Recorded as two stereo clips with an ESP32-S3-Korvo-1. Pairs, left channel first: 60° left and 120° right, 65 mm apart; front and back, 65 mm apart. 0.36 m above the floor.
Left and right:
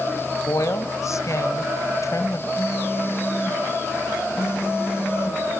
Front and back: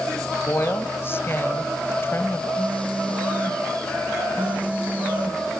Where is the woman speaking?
45° left, 2 m.